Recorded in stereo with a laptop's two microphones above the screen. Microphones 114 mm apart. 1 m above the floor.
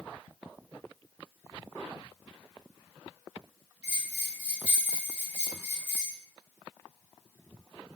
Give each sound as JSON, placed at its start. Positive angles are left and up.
{"t": 3.8, "sound": "a bell", "side_deg": -25, "distance_m": 1.8}